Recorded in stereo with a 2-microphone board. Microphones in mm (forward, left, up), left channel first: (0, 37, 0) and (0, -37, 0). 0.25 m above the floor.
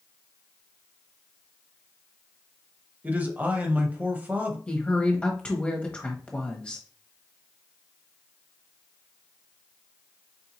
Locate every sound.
3.0 s a man speaking: 25° right (ahead or behind), 0.9 m
4.7 s a woman speaking: 15° left (ahead or behind), 0.9 m